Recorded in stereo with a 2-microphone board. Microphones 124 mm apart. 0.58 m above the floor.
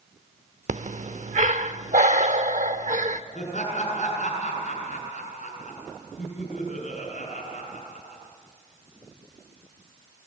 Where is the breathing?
75° right (ahead or behind), 0.9 m.